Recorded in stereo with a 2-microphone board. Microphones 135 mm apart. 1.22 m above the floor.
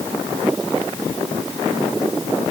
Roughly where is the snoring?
No snoring in this recording.